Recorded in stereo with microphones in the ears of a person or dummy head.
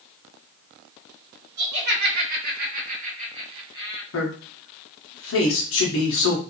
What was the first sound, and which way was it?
Laughter, 75° right (ahead or behind).